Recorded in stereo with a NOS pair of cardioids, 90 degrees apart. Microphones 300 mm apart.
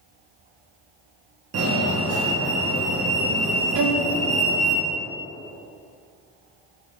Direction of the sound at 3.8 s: 70° right.